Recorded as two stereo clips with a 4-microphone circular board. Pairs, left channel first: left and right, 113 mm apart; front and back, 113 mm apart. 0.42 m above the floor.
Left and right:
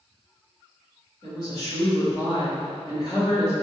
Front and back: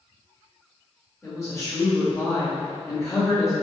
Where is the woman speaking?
55° left, 1.7 m.